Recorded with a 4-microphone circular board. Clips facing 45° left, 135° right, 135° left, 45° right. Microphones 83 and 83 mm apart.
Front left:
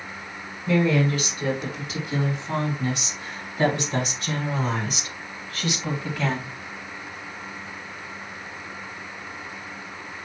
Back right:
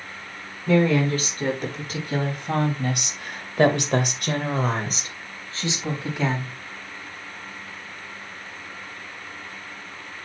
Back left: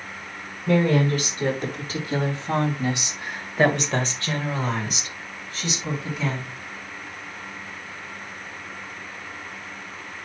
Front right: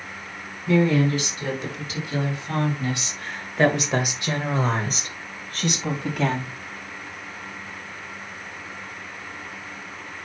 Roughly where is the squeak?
I don't hear a squeak.